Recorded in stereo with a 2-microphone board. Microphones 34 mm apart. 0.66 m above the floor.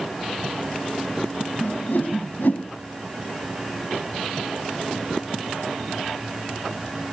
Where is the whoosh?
70° left (ahead or behind), 3 m.